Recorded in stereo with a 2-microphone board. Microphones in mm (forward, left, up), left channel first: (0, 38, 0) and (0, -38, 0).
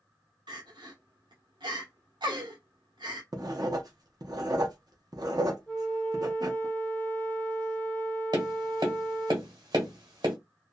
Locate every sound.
0.5 s crying: 85° right, 0.9 m
3.3 s writing: 60° right (ahead or behind), 0.6 m
5.7 s a flute: 20° left (ahead or behind), 0.7 m
8.3 s tapping: 70° right (ahead or behind), 1.1 m